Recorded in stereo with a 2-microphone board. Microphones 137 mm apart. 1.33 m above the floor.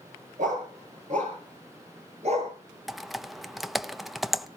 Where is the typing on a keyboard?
Centre (ahead or behind), 0.6 m.